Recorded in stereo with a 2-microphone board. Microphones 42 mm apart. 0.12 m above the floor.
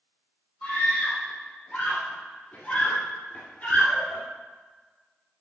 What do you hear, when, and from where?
0.6 s a scream: 25° left (ahead or behind), 4 m; by 4.2 s 40° left (ahead or behind), 1.9 m